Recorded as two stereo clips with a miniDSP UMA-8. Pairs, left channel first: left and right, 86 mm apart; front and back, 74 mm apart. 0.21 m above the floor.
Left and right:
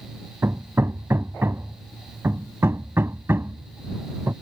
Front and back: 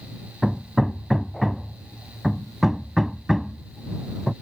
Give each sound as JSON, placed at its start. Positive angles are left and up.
{"t": 0.4, "sound": "hammering", "azimuth_deg": -95}